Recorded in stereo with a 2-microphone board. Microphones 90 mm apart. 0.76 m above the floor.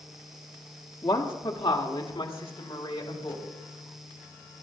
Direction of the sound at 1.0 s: 60° left (ahead or behind).